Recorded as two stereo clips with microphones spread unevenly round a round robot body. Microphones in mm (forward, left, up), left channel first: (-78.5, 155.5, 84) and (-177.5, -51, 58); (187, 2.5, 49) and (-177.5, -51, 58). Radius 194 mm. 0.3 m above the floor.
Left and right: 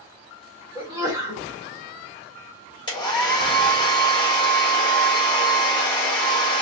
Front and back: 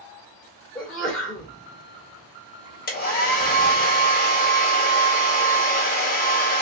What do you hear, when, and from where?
0.8 s a sneeze: 75° right, 1.6 m
2.9 s a hair dryer: 5° left, 1.4 m